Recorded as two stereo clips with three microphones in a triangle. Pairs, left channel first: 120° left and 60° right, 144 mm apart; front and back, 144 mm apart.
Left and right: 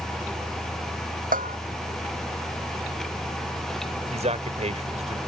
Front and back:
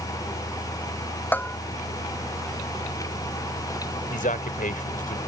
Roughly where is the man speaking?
Ahead.